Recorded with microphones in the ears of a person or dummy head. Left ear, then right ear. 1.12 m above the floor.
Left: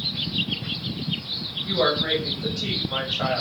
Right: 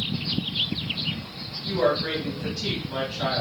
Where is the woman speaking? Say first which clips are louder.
Left 1 dB; 25° left (ahead or behind), 0.9 m.